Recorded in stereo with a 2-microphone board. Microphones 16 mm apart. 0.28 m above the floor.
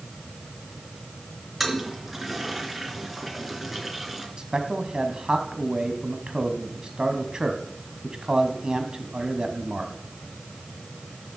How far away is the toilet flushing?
About 3 m.